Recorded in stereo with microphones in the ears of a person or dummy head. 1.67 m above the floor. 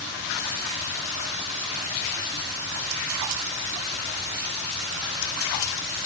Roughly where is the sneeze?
I don't hear a sneeze.